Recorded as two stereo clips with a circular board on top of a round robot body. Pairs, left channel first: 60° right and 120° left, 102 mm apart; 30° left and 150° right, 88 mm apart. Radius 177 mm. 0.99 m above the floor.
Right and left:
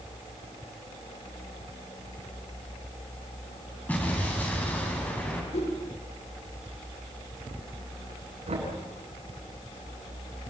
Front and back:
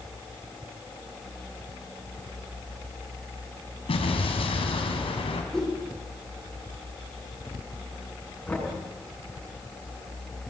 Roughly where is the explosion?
Ahead.